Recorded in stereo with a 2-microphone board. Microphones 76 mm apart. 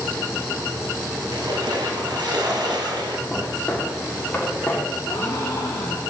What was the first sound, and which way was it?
A splash, 65° right (ahead or behind).